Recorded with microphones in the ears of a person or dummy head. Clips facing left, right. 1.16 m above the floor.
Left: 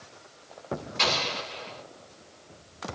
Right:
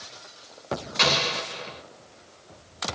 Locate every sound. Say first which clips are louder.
1.0 s an explosion: right 4 dB; 65° right (ahead or behind), 1.2 m